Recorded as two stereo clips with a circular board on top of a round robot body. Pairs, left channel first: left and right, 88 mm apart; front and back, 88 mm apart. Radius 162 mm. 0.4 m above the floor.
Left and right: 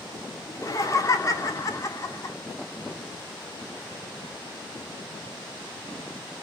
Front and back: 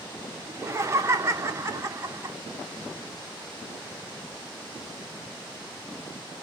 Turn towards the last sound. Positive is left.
turn(degrees=130)